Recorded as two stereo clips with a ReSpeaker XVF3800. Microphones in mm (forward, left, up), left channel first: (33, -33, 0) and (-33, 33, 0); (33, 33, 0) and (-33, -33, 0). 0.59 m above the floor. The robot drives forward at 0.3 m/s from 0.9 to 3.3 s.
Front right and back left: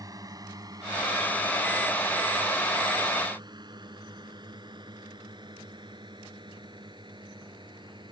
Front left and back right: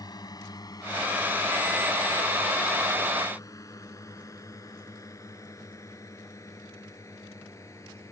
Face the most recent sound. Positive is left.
turn(degrees=100)